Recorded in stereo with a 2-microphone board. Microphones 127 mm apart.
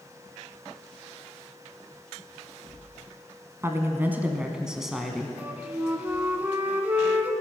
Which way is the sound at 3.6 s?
20° right (ahead or behind).